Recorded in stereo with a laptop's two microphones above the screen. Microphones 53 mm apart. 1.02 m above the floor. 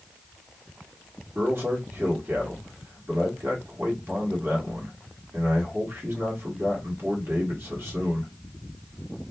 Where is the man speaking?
50° right (ahead or behind), 1.3 m.